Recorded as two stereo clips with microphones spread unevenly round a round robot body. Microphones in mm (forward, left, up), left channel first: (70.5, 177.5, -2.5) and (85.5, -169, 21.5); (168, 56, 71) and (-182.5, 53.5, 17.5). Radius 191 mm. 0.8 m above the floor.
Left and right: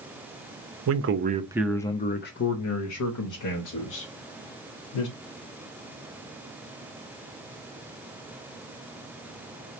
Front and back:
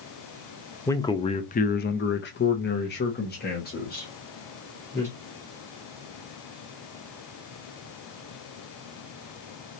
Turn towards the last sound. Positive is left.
turn(degrees=70)